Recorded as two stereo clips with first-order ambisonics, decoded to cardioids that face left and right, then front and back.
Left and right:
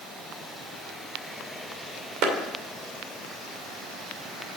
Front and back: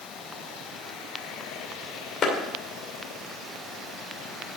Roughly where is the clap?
Ahead right.